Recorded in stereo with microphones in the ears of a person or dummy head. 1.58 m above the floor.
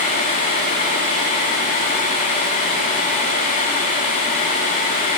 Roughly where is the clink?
No clink in this recording.